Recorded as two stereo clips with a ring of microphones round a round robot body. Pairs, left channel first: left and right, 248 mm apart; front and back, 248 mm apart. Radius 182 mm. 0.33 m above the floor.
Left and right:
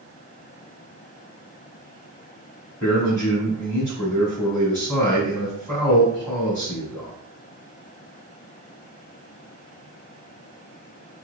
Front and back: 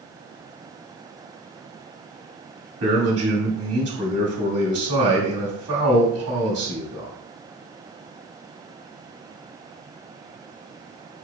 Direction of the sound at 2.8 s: 175° left.